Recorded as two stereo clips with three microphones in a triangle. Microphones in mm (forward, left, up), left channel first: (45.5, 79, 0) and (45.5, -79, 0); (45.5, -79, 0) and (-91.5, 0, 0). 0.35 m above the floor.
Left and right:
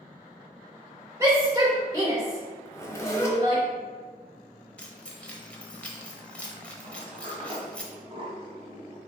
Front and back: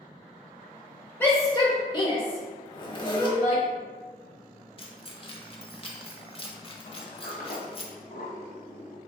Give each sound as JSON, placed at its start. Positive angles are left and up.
{"t": 1.2, "sound": "a shout", "azimuth_deg": -80, "distance_m": 1.0}
{"t": 2.6, "sound": "a zipper", "azimuth_deg": 20, "distance_m": 1.2}
{"t": 4.8, "sound": "keys jangling", "azimuth_deg": 10, "distance_m": 1.0}
{"t": 6.8, "sound": "a sliding door", "azimuth_deg": -40, "distance_m": 1.3}